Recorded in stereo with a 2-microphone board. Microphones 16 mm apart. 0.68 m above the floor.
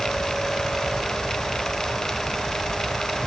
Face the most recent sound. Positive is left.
No sound to turn to.